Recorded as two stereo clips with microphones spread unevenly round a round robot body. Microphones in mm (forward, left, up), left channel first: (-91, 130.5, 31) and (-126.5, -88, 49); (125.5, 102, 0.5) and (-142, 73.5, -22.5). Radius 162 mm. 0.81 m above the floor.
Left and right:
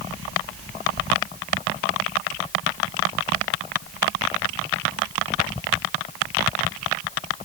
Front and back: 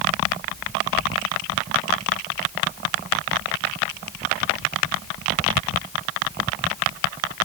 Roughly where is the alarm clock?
No alarm clock in this recording.